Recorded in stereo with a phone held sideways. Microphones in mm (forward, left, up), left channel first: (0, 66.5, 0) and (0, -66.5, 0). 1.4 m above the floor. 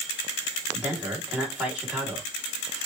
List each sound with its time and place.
0.7 s a man speaking: 10° right (ahead or behind), 1.7 m